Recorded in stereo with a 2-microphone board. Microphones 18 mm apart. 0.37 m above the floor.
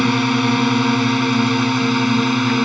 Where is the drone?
Centre (ahead or behind); by 2.7 s 5° right (ahead or behind).